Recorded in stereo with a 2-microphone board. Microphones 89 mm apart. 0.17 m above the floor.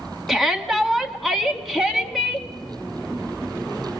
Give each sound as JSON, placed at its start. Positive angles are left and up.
{"t": 0.3, "sound": "a shout", "side_deg": 0, "distance_m": 1.3}